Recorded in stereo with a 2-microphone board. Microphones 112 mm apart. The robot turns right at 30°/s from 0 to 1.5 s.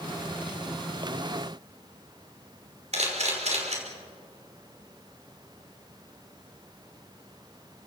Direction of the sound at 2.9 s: 80° right.